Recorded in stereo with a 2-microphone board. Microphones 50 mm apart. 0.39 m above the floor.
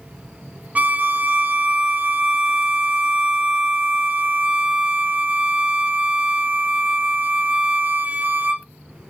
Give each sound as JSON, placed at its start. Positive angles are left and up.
{"t": 0.8, "sound": "a violin", "side_deg": -30, "distance_m": 0.5}